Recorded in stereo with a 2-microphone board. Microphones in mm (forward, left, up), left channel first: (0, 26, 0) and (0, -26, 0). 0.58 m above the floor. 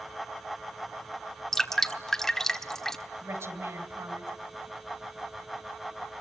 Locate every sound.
1.5 s dripping: 10° left (ahead or behind), 1.3 m
3.2 s a woman speaking: 70° right (ahead or behind), 3.5 m